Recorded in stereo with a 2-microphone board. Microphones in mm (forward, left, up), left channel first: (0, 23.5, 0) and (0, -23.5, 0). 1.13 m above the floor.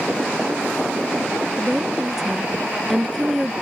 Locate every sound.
1.6 s a woman speaking: centre (ahead or behind)